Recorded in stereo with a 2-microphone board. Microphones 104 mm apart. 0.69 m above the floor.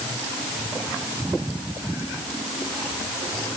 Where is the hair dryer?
I don't hear a hair dryer.